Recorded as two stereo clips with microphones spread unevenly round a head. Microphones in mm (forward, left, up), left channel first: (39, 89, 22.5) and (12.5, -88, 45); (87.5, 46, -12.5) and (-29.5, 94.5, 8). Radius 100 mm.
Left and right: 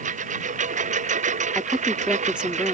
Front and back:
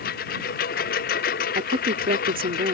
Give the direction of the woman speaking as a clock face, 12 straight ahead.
6 o'clock.